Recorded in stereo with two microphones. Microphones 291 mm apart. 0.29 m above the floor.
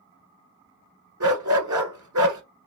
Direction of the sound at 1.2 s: 85° right.